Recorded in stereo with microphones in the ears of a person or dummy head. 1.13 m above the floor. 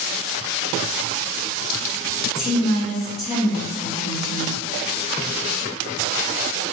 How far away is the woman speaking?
About 1.0 m.